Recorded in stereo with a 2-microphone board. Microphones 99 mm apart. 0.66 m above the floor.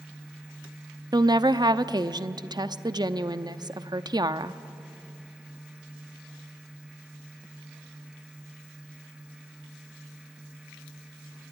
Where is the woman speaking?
45° right (ahead or behind), 0.7 m.